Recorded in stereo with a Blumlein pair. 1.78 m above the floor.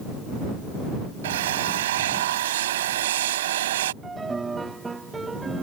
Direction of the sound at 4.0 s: 10° right.